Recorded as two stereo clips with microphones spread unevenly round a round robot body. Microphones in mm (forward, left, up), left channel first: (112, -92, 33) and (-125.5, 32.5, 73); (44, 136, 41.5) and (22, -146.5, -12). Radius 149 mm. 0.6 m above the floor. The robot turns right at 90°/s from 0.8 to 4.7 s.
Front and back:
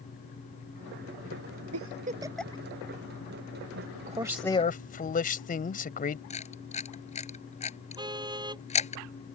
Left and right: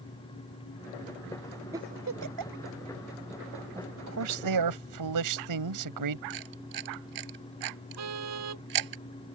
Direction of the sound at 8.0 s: 135° right.